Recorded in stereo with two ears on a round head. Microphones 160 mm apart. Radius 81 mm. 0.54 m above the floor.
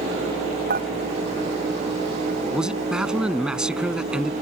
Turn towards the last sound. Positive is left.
turn(degrees=-5)  # may be behind; listen again after turning